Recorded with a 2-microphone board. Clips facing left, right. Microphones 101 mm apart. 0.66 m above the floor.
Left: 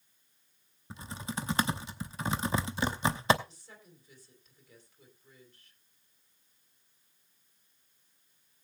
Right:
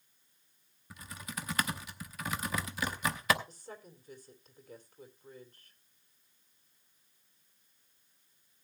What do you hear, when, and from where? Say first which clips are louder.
0.9 s typing on a keyboard: left 5 dB; 25° left (ahead or behind), 0.8 m
3.5 s a woman speaking: right 7 dB; 50° right (ahead or behind), 2.5 m